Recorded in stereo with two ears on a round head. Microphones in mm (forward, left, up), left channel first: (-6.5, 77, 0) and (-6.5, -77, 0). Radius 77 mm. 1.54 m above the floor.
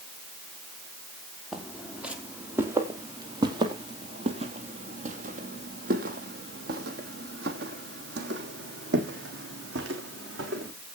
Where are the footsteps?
Centre (ahead or behind), 2.5 m; by 10.7 s 70° right (ahead or behind), 4.5 m.